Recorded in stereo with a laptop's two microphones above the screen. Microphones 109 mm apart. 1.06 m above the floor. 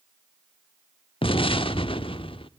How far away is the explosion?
About 1.0 m.